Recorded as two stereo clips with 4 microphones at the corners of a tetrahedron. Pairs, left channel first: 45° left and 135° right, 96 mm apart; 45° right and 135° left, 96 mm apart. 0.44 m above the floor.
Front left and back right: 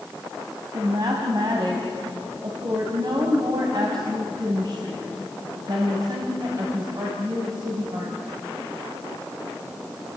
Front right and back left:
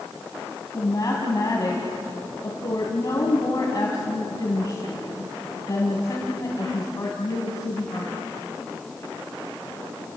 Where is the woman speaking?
95° right, 3 m.